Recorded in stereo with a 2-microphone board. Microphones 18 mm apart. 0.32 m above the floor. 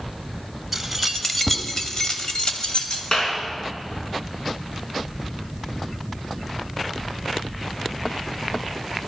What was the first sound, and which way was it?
Keys jangling, centre (ahead or behind).